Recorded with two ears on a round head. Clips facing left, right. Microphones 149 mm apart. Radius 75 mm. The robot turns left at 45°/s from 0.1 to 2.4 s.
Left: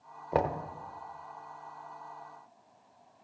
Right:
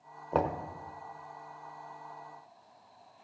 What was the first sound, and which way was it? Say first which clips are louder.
Knocking: left 1 dB; 15° left (ahead or behind).